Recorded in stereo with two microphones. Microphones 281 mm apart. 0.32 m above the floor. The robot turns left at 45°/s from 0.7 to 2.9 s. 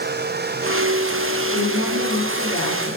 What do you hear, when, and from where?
1.5 s a woman speaking: 140° left, 6 m; by 3.0 s 80° left, 6 m